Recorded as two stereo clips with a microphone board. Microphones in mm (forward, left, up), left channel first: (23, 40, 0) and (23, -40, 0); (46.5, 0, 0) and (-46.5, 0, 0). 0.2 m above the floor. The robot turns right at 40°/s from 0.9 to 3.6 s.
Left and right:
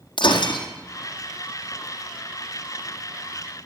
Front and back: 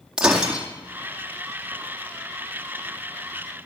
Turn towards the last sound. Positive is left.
turn(degrees=-155)